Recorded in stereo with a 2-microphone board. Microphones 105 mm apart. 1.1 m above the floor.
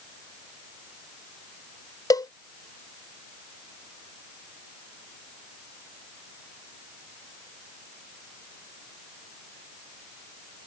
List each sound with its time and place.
2.1 s a cowbell: 35° left (ahead or behind)